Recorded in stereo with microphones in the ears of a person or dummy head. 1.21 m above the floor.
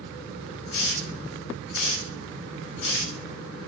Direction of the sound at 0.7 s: 80° left.